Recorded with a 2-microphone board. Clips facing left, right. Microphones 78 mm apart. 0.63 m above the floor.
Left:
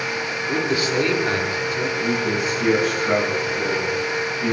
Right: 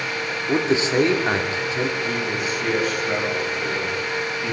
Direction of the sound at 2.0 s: 50° left (ahead or behind).